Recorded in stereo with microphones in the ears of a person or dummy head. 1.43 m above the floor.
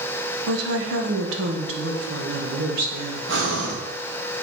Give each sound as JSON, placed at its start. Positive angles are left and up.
{"t": 0.5, "sound": "a woman speaking", "side_deg": -75, "distance_m": 1.1}
{"t": 3.3, "sound": "breathing", "side_deg": -75, "distance_m": 1.7}